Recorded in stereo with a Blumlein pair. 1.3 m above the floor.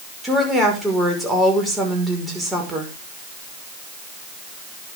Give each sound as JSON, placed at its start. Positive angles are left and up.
{"t": 0.2, "sound": "a woman speaking", "azimuth_deg": -5, "distance_m": 5.5}